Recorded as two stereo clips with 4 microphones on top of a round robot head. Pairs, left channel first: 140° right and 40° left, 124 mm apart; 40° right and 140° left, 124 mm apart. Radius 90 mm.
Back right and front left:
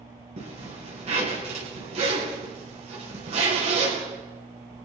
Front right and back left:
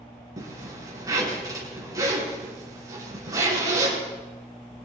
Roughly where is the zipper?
Left.